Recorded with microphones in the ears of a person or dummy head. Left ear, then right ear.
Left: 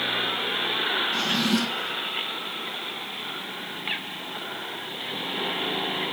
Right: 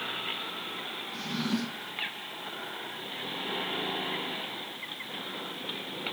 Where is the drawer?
20° left (ahead or behind), 2.5 m.